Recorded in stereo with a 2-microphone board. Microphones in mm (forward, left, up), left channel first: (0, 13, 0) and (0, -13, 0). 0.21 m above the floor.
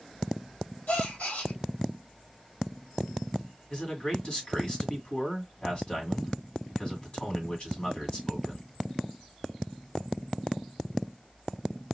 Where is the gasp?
80° left, 2.5 m.